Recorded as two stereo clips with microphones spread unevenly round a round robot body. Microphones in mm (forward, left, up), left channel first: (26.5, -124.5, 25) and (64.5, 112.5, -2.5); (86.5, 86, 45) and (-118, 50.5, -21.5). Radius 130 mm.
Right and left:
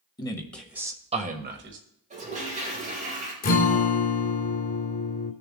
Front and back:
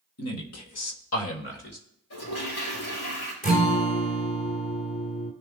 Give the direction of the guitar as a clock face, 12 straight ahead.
2 o'clock.